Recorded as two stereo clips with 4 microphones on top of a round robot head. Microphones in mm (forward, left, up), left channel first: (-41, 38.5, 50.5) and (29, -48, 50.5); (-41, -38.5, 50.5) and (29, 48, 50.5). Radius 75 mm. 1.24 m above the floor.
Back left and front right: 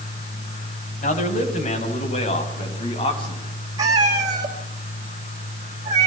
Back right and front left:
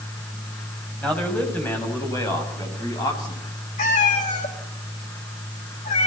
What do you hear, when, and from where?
1.0 s a man speaking: 150° left, 6.5 m; by 3.5 s straight behind, 8 m
3.8 s a cat meowing: 110° right, 3.5 m